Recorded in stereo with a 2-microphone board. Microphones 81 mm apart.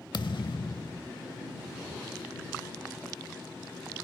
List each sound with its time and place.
0.1 s a thud: 70° left (ahead or behind)